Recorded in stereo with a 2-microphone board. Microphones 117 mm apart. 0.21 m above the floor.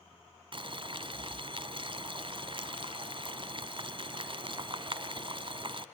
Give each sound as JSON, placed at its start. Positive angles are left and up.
{"t": 0.5, "sound": "boiling", "side_deg": -45, "distance_m": 0.9}